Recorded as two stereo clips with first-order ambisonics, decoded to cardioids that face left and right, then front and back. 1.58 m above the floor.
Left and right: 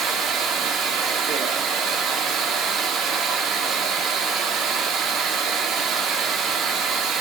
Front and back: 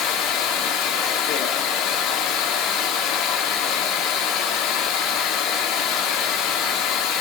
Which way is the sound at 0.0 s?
40° right.